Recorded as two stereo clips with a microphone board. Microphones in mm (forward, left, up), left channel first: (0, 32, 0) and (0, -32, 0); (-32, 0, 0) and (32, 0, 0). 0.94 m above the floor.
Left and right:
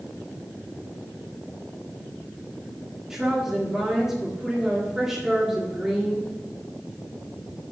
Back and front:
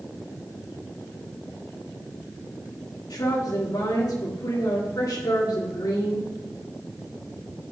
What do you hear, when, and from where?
3.1 s a woman speaking: 175° right, 1.7 m